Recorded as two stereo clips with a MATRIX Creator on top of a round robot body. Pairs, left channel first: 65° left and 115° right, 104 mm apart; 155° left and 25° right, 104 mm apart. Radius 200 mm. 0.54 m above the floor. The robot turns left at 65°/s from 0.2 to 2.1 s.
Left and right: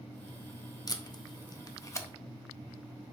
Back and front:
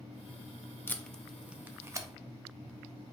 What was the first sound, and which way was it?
Tape being pulled, 95° left.